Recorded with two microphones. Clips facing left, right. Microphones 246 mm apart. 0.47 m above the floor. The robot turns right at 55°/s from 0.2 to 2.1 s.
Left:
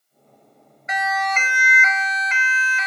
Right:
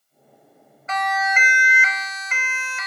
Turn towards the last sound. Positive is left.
turn(degrees=-55)  # may be behind; listen again after turning